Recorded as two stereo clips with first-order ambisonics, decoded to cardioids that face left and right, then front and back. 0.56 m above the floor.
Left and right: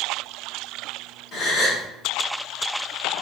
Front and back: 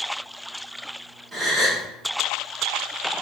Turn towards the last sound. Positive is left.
turn(degrees=115)